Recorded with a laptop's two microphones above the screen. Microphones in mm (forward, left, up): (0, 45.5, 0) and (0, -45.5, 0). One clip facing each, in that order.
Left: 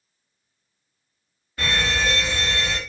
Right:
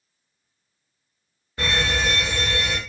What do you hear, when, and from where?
1.6 s an alarm: 20° right (ahead or behind), 2 m